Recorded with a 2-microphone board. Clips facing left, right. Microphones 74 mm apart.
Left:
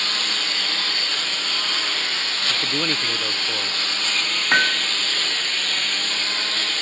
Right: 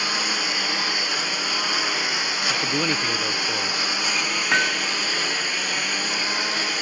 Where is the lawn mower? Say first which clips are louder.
Right 2 dB; 15° right (ahead or behind).